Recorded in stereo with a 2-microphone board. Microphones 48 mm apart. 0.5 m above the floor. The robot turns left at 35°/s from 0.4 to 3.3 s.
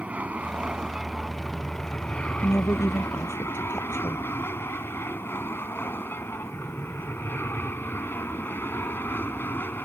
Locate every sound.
0.0 s an aircraft: 30° right (ahead or behind); by 9.9 s 50° left (ahead or behind)
2.4 s a woman speaking: 105° left; by 4.3 s 75° left